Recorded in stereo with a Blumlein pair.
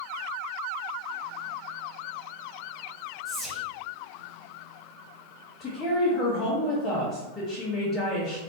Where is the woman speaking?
20° left, 1.3 m.